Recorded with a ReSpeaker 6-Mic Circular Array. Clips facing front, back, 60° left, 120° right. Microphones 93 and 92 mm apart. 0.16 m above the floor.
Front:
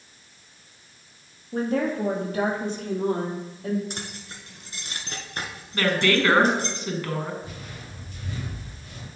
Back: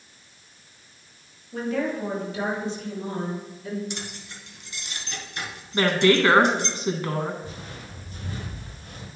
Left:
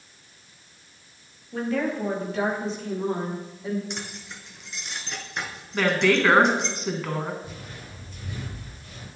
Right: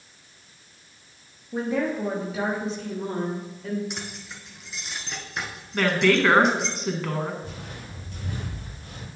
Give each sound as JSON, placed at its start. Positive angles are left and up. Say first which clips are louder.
{"t": 1.5, "sound": "a woman speaking", "louder": "front 2 dB, right 1 dB", "azimuth_deg": -50, "distance_m": 3.0}
{"t": 3.9, "sound": "keys jangling", "louder": "back 1 dB, even", "azimuth_deg": -30, "distance_m": 1.4}
{"t": 5.7, "sound": "a woman speaking", "louder": "back 3 dB, even", "azimuth_deg": 145, "distance_m": 1.4}
{"t": 7.4, "sound": "footsteps", "louder": "back 1 dB, right 2 dB", "azimuth_deg": -125, "distance_m": 4.0}